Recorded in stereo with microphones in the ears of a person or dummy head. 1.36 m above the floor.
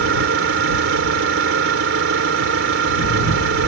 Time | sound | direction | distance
0.0 | an engine running | 85° right | ?